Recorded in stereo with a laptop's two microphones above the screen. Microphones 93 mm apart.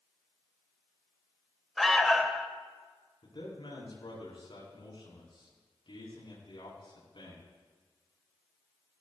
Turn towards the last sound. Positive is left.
turn(degrees=65)  # may be behind; listen again after turning